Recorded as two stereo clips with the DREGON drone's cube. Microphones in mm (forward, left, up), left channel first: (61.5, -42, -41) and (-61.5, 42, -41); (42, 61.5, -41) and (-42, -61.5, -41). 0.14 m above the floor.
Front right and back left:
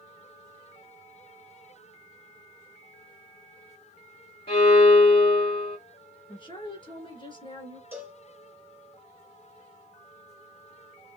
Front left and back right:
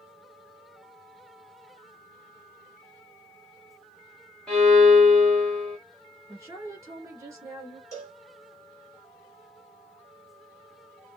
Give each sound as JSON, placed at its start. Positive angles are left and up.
{"t": 4.5, "sound": "a violin", "azimuth_deg": -30, "distance_m": 2.0}
{"t": 6.3, "sound": "a woman speaking", "azimuth_deg": -65, "distance_m": 1.9}
{"t": 7.9, "sound": "a cowbell", "azimuth_deg": 95, "distance_m": 1.8}